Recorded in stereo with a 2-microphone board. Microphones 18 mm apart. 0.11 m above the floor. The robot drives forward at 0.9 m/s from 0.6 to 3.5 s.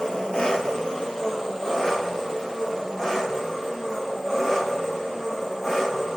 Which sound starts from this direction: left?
An engine running, at 0.0 s.